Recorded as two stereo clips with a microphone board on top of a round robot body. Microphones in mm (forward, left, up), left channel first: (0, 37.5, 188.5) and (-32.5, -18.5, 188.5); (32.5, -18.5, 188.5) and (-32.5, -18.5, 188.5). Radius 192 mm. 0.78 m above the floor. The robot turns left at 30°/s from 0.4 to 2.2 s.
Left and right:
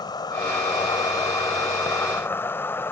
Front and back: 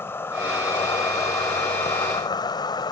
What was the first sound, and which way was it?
An insect, 55° left.